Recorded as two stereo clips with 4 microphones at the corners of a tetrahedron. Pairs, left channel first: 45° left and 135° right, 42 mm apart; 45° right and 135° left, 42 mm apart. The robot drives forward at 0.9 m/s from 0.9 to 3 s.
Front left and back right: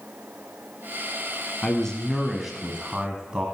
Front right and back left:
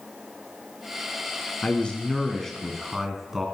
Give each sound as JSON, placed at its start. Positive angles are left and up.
{"t": 1.6, "sound": "a man speaking", "azimuth_deg": -15, "distance_m": 1.5}